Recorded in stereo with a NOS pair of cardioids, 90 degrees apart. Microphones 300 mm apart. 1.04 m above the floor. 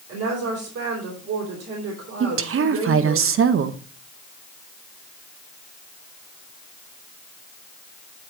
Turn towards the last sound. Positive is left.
turn(degrees=-45)